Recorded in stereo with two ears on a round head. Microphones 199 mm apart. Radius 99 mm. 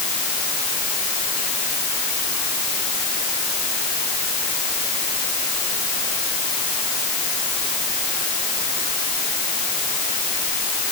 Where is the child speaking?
No child speaking in this recording.